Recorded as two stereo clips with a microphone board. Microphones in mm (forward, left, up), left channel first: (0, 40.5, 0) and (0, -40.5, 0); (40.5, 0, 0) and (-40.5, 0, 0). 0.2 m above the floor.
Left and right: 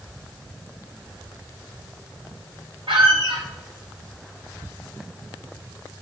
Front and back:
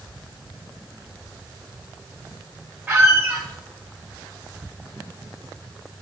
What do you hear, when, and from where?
2.9 s a squeak: 105° right, 1.9 m